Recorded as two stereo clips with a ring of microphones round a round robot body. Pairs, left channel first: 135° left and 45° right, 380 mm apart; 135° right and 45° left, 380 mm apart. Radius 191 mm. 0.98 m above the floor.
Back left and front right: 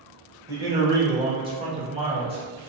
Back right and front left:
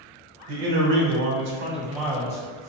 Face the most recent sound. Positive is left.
turn(degrees=-115)